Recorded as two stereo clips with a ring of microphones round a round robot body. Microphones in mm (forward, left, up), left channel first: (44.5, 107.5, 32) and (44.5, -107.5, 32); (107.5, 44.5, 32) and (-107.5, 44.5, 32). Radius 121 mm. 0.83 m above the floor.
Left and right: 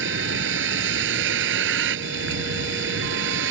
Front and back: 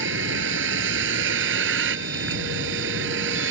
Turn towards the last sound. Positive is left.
turn(degrees=-135)